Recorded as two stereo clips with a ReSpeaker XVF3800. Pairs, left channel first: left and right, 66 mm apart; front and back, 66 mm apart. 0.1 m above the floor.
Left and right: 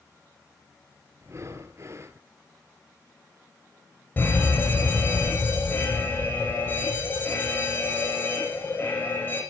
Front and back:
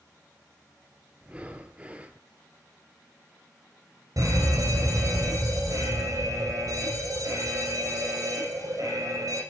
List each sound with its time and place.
1.2 s breathing: 115° right, 1.6 m
4.2 s a fire alarm: 150° left, 9.5 m